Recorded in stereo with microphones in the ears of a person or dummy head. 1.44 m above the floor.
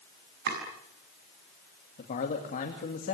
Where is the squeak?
I don't hear a squeak.